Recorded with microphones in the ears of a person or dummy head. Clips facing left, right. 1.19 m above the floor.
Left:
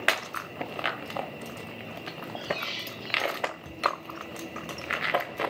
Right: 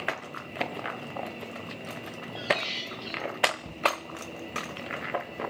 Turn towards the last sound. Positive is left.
turn(degrees=-25)  # may be behind; listen again after turning